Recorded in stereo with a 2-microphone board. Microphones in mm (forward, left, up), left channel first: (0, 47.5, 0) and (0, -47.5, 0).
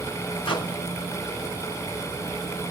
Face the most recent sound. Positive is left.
turn(degrees=60)  # may be behind; listen again after turning